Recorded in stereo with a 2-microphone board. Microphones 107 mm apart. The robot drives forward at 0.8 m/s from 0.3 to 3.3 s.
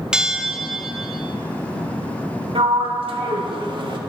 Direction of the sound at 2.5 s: 65° right (ahead or behind).